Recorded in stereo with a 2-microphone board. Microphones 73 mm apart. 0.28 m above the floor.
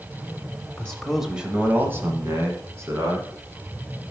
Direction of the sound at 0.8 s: 20° left (ahead or behind).